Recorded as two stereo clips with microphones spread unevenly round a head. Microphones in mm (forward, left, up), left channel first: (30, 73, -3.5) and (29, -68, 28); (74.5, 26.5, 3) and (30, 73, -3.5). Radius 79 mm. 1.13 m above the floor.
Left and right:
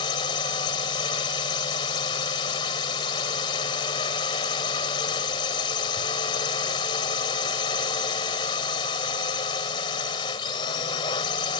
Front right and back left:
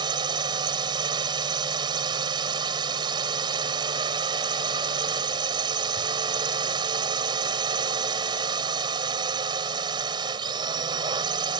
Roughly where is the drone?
Behind left.